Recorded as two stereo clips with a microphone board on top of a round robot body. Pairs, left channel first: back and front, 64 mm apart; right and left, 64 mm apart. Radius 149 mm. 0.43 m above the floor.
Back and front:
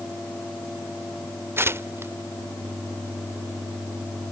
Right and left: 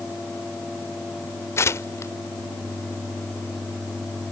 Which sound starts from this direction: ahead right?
Tearing paper, at 1.6 s.